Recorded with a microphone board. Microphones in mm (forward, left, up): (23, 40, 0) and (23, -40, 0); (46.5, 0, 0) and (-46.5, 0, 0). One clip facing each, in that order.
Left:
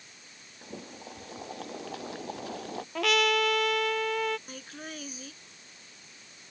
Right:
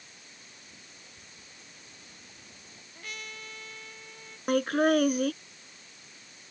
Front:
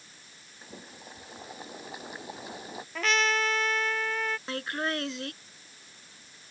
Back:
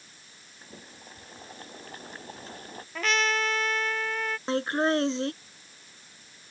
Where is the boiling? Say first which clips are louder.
Left 11 dB, front 2 dB; 80° left.